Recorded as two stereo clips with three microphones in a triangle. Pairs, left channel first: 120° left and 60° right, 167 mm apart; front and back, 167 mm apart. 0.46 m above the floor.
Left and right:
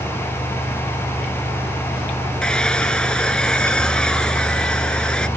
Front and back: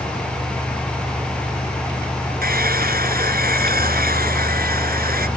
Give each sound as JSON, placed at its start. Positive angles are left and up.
{"t": 2.4, "sound": "a hair dryer", "azimuth_deg": -155}